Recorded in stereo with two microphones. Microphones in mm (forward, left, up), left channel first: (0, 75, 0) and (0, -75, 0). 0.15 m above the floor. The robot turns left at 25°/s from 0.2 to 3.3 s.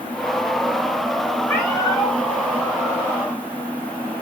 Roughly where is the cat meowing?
Centre.